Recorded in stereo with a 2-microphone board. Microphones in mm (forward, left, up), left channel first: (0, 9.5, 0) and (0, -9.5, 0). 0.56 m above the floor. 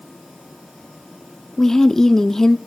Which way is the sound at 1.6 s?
30° left (ahead or behind).